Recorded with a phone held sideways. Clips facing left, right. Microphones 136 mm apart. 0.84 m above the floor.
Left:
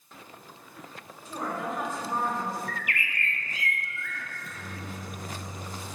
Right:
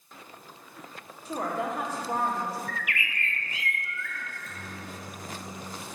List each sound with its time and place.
1.2 s a woman speaking: 70° right (ahead or behind), 2 m
2.7 s a bird: 45° left (ahead or behind), 0.9 m
4.3 s a microwave: 40° right (ahead or behind), 1.8 m